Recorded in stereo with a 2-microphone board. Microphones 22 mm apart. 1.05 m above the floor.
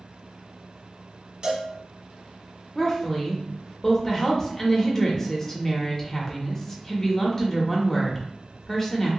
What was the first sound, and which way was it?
A cowbell, 45° right (ahead or behind).